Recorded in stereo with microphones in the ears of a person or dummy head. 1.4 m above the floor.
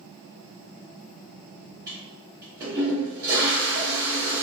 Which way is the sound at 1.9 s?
20° right (ahead or behind).